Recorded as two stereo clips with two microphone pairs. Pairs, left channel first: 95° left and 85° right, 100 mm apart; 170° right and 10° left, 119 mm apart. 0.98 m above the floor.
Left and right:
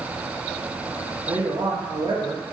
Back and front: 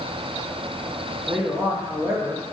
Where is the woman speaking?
60° right, 1.0 m.